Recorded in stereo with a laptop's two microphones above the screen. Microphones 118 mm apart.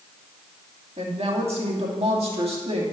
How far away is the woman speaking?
About 2.5 m.